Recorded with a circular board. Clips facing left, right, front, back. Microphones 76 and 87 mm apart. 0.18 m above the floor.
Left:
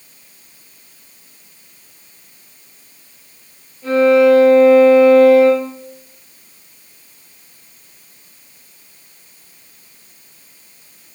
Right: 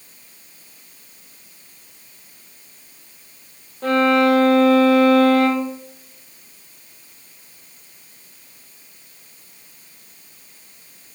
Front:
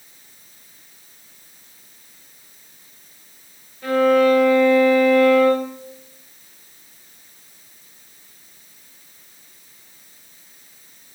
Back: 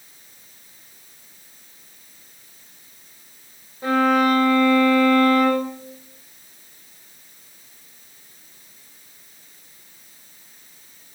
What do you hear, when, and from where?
3.8 s a violin: 115° right, 10 m